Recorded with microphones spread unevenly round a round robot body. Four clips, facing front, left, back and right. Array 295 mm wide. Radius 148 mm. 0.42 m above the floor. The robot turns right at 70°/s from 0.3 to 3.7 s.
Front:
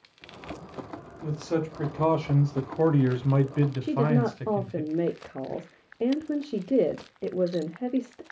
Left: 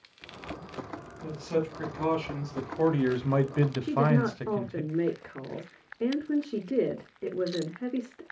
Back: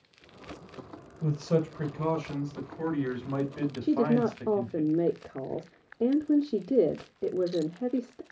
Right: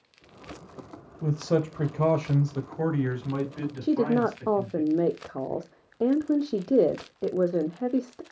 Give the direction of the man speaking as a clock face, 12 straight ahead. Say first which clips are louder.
Right 4 dB, back 1 dB; 3 o'clock.